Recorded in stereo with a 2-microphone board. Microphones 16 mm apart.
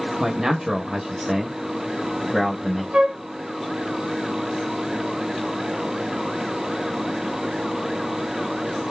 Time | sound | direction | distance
0.2 | a man speaking | 40° right (ahead or behind) | 1.0 m
2.9 | a flute | 65° right (ahead or behind) | 1.8 m